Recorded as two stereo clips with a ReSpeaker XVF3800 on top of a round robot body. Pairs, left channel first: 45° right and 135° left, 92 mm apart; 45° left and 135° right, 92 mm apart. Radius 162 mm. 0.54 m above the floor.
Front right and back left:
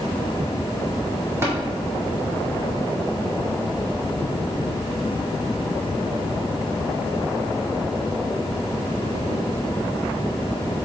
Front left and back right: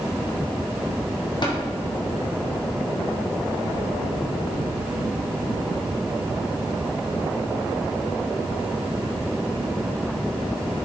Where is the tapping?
75° left, 2 m.